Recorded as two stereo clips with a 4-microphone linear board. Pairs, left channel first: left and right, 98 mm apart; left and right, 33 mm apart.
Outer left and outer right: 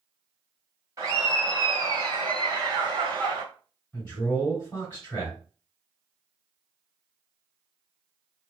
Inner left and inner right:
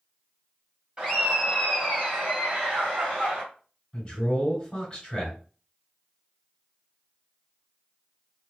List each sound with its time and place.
1.0 s laughter: 35° right (ahead or behind), 1.6 m; by 3.4 s 45° right (ahead or behind), 2 m
3.9 s a man speaking: 20° left (ahead or behind), 1.6 m